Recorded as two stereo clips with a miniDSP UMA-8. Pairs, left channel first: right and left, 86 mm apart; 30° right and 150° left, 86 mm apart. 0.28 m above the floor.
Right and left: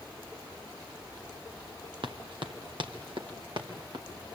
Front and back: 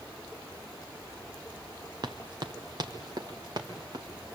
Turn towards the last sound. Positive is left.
turn(degrees=110)